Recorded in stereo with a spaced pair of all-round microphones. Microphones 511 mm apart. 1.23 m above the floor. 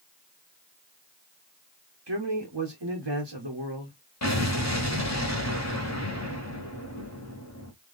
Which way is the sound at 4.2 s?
30° left (ahead or behind).